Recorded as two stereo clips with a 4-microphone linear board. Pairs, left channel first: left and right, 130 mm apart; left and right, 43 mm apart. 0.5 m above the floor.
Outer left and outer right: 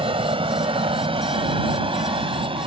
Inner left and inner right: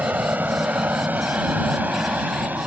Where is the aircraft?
45° right (ahead or behind).